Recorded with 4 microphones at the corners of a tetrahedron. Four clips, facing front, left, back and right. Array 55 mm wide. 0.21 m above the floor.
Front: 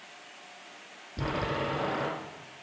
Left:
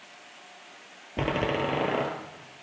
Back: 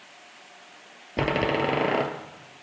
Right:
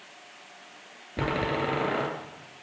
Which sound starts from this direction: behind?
A door slam, at 1.2 s.